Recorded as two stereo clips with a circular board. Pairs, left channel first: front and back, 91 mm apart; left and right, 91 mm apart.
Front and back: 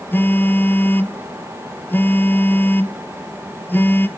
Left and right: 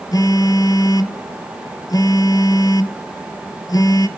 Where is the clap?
I don't hear a clap.